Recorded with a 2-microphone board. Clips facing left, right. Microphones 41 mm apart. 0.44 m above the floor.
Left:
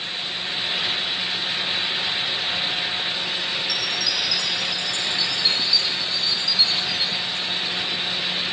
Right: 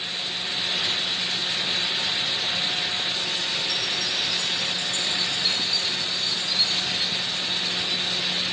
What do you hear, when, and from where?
3.7 s a chime: 40° right (ahead or behind)